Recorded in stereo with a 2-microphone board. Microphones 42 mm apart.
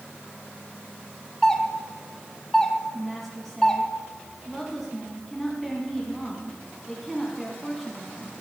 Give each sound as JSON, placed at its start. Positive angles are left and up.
{"t": 1.4, "sound": "a doorbell", "side_deg": 10, "distance_m": 1.4}
{"t": 2.9, "sound": "a woman speaking", "side_deg": 5, "distance_m": 2.0}